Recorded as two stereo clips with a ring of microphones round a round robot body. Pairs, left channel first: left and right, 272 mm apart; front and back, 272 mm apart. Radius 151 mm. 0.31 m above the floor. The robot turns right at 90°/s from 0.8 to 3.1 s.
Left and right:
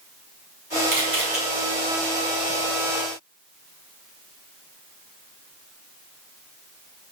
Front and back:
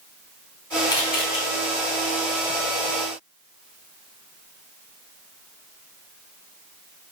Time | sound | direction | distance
0.9 | a camera shutter | 75° right | 3.5 m